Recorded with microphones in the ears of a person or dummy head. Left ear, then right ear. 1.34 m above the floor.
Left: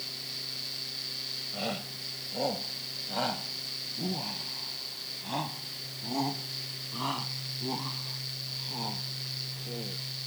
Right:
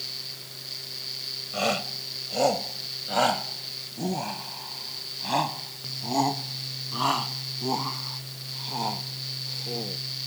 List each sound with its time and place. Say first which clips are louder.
1.5 s a shout: right 8 dB; 40° right (ahead or behind); by 10.0 s 30° right (ahead or behind)